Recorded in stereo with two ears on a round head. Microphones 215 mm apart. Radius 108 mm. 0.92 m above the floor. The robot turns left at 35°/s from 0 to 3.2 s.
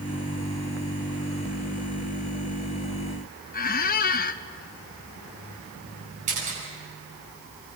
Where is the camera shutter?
35° right (ahead or behind), 9.5 m.